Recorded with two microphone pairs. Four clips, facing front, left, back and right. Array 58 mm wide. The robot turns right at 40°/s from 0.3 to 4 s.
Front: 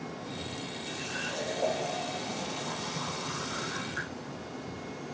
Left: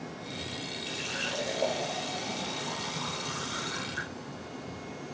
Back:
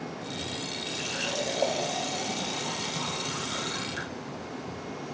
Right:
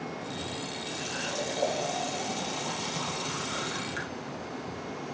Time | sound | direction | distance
0.9 | a running tap | 140° left | 2 m